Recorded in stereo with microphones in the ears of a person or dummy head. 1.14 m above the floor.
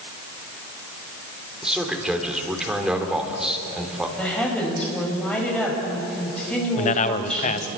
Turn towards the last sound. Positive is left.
turn(degrees=40)  # may be behind; listen again after turning